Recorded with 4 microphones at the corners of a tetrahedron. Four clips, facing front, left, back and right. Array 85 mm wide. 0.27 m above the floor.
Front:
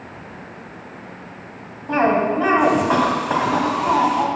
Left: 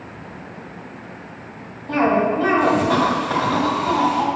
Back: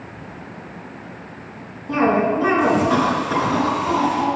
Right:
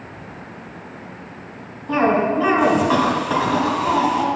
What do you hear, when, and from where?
1.9 s a cough: 10° left, 2 m